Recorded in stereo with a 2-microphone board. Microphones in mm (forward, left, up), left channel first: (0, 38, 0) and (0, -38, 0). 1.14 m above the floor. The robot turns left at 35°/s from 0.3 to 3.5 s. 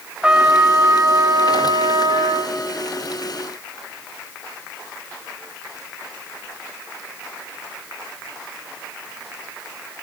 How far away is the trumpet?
About 1.5 m.